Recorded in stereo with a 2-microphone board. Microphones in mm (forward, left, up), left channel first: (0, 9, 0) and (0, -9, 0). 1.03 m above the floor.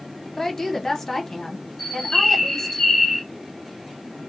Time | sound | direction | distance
0.4 | a woman speaking | 15° left (ahead or behind) | 0.9 m
1.8 | a bird | 15° left (ahead or behind) | 1.5 m